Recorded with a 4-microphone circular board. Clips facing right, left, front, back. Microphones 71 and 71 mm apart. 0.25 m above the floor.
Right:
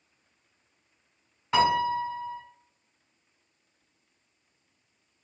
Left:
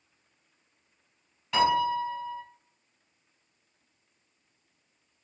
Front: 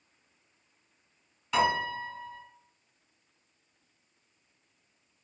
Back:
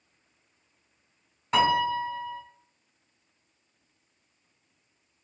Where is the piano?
145° right, 1.3 m.